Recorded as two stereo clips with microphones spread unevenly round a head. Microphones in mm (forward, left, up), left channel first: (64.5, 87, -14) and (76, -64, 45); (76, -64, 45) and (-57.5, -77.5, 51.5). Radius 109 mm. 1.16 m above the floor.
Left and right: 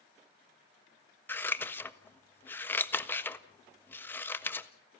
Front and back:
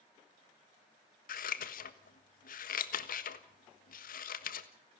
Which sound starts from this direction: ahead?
Scissors, at 1.3 s.